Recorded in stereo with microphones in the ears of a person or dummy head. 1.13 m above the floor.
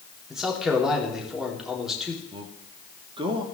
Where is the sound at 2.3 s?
30° right (ahead or behind), 2 m.